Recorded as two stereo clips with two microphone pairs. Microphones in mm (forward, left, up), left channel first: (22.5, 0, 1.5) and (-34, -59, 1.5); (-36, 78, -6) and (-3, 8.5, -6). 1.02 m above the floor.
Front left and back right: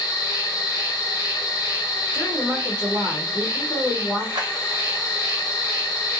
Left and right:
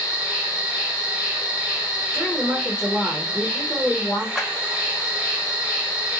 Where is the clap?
150° right, 0.9 m.